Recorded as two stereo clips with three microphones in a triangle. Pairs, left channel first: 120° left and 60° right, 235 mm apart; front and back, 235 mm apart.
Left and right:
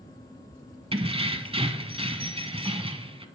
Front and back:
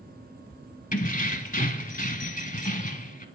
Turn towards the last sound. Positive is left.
turn(degrees=-10)